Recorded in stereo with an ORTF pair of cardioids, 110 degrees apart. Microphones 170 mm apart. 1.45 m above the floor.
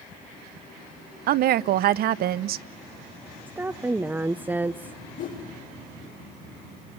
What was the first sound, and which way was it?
A woman speaking, 65° right.